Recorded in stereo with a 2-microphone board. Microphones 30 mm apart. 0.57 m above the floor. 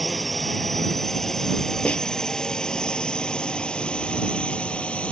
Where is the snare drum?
50° left (ahead or behind).